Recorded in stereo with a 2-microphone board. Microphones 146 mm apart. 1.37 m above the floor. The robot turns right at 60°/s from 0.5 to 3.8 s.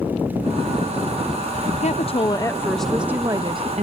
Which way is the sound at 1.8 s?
115° left.